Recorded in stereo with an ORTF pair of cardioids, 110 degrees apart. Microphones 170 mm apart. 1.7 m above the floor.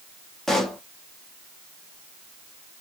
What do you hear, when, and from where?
0.5 s a pop: straight ahead, 0.8 m